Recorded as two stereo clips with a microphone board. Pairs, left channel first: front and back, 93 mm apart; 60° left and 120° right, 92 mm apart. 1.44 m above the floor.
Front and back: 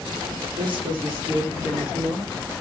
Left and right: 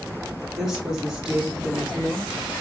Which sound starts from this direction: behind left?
A woman speaking, at 0.6 s.